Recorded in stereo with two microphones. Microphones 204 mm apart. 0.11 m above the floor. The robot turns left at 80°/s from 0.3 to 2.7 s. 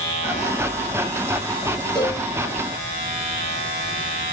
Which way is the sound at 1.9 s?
5° left (ahead or behind).